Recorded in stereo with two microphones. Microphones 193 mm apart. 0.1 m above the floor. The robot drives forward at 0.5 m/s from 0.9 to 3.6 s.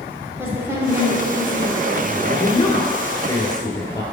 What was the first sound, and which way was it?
A woman speaking, 10° right (ahead or behind).